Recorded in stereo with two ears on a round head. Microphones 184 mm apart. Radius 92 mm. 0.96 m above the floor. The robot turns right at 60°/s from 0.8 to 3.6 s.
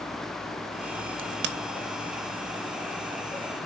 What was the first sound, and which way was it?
A crack, 60° right (ahead or behind).